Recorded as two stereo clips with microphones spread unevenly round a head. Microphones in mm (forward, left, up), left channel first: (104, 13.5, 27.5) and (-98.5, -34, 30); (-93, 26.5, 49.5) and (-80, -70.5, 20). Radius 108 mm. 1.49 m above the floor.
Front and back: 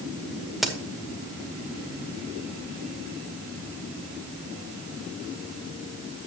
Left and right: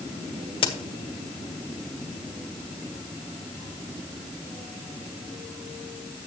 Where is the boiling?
No boiling in this recording.